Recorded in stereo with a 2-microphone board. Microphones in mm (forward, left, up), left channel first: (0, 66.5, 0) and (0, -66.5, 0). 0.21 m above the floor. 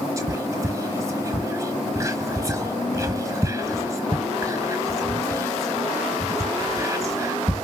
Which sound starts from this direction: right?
Whispering, at 0.2 s.